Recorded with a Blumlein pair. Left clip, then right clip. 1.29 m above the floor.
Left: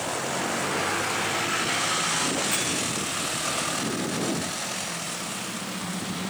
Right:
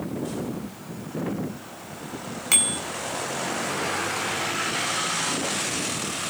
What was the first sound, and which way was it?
A bicycle bell, 35° right.